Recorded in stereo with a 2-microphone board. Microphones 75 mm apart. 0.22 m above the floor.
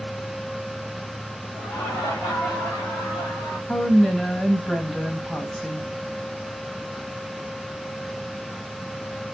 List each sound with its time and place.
1.5 s laughter: 40° left (ahead or behind), 5 m; by 3.6 s 35° left (ahead or behind), 3 m
3.7 s a woman speaking: 5° left (ahead or behind), 1.7 m